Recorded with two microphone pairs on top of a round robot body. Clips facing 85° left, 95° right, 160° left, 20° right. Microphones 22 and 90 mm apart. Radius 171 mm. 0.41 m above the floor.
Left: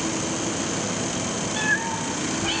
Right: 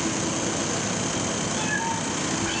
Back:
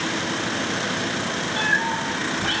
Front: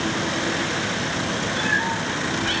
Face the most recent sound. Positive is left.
turn(degrees=105)